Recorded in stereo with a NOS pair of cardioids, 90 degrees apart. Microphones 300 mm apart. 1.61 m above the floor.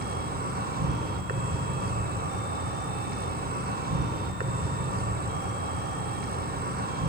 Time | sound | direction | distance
0.0 | an insect | 30° right | 1.2 m